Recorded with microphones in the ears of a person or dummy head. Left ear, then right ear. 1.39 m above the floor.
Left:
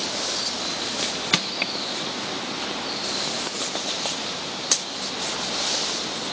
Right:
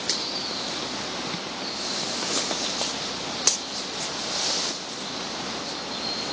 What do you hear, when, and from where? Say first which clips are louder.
1.3 s crushing: left 8 dB; 45° left (ahead or behind), 0.5 m